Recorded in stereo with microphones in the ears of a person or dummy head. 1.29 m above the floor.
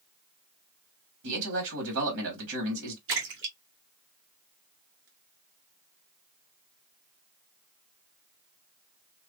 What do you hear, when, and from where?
1.2 s a man speaking: 75° right (ahead or behind), 1.8 m
3.1 s a splash: 75° right (ahead or behind), 1.6 m